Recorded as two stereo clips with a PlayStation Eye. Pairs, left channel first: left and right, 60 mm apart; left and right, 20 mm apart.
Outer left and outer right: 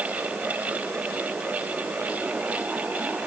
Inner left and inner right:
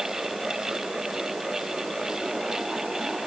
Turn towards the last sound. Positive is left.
No sound to turn to.